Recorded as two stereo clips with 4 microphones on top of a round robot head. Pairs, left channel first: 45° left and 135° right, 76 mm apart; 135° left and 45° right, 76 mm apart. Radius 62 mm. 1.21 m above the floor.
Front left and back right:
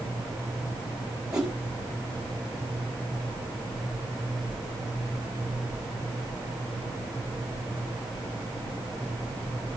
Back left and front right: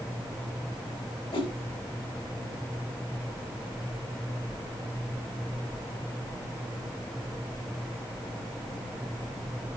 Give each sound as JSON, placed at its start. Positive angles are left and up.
{"t": 1.3, "sound": "a whoosh", "azimuth_deg": 145, "distance_m": 3.0}